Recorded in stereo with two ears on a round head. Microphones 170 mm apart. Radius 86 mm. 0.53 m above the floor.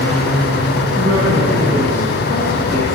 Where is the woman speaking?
80° right, 6.5 m.